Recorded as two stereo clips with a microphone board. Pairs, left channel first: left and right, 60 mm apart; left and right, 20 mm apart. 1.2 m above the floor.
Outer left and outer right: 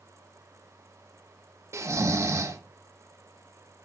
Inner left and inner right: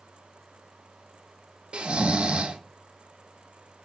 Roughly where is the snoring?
Right.